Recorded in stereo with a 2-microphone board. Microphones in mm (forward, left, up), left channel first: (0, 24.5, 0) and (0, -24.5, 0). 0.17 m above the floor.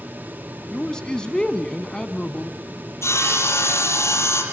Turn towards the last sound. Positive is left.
turn(degrees=70)  # may be behind; listen again after turning